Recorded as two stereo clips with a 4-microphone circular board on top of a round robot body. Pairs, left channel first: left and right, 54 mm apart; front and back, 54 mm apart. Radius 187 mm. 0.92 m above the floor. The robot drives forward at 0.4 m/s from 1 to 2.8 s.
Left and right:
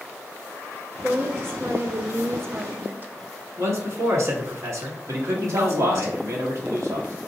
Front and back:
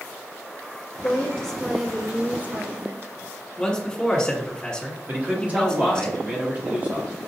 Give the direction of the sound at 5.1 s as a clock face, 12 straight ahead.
4 o'clock.